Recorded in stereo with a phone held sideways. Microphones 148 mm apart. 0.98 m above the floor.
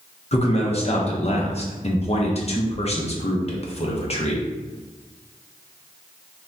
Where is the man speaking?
45° left (ahead or behind), 0.6 m.